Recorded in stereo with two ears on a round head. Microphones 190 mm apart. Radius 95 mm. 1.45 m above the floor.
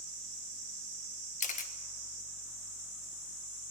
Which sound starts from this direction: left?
A camera shutter, at 1.4 s.